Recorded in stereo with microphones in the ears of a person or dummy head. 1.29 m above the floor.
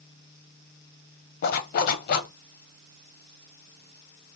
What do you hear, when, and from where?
1.4 s a zipper: 50° left (ahead or behind), 0.7 m